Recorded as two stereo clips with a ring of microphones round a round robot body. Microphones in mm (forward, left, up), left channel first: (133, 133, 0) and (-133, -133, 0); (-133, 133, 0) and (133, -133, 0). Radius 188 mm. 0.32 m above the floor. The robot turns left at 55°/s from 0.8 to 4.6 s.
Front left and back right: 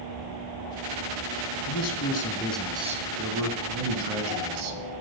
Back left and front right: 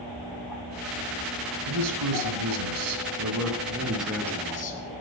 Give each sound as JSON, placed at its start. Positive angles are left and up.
{"t": 1.7, "sound": "a man speaking", "azimuth_deg": 5, "distance_m": 2.5}